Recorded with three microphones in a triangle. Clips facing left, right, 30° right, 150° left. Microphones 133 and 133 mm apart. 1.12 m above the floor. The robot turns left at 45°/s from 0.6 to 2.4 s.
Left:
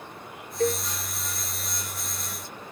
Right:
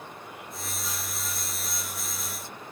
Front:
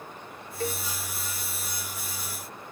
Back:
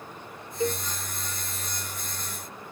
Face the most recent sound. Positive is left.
turn(degrees=-5)